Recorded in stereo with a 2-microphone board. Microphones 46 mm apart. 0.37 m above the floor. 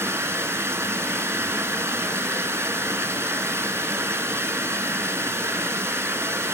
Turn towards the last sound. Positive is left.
turn(degrees=-90)